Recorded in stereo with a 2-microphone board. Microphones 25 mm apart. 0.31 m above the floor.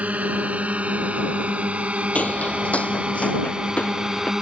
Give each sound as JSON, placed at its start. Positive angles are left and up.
{"t": 0.0, "sound": "a drone", "side_deg": -70}
{"t": 2.1, "sound": "footsteps", "side_deg": 65}